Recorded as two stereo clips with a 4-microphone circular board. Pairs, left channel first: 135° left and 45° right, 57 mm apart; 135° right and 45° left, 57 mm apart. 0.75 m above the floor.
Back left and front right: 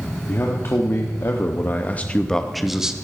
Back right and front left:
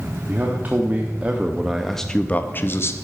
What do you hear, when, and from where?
0.3 s a man speaking: 95° left, 1.2 m; by 3.0 s 120° right, 0.7 m